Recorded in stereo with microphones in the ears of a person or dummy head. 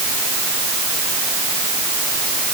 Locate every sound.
Only background noise.